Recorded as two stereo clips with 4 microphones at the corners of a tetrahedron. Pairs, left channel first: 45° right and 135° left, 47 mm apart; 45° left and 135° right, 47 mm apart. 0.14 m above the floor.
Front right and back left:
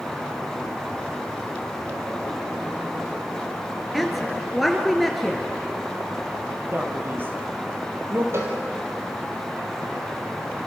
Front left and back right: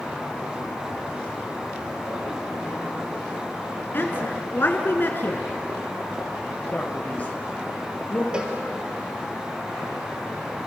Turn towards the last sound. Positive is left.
turn(degrees=155)